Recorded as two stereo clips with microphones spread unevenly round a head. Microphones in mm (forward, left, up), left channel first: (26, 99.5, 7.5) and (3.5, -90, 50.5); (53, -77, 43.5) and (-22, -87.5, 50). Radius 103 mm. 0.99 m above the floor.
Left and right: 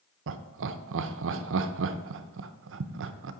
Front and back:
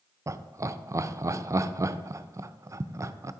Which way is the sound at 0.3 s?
120° right.